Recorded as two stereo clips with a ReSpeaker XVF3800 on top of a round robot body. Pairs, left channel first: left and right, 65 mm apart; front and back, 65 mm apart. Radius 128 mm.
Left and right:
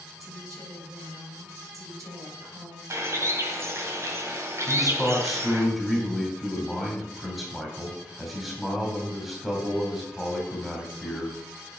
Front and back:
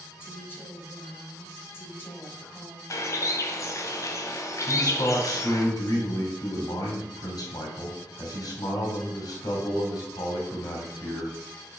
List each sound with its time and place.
0.2 s a woman speaking: 55° right, 4 m
2.9 s a bird: 40° right, 1.6 m
4.7 s a man speaking: straight ahead, 3 m